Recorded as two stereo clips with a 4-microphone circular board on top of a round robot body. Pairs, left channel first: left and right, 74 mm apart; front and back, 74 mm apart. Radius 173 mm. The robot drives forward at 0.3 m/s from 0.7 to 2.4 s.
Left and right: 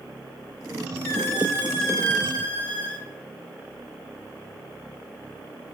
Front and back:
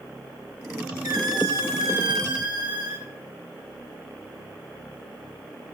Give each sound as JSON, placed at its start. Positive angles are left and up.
{"t": 1.0, "sound": "a squeak", "azimuth_deg": 150, "distance_m": 1.5}